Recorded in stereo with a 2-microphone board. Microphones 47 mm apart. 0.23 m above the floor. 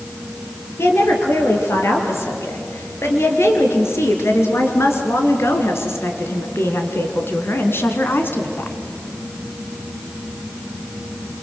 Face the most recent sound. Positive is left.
turn(degrees=45)  # may be behind; listen again after turning